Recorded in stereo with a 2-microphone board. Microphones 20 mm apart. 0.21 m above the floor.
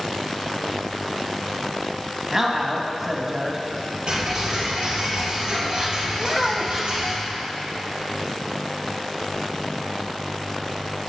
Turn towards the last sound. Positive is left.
turn(degrees=5)  # may be behind; listen again after turning